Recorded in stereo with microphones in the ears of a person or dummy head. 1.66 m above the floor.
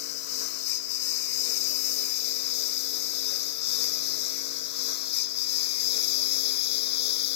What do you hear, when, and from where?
0.0 s a lawn mower: 60° left (ahead or behind); by 7.4 s 55° left (ahead or behind)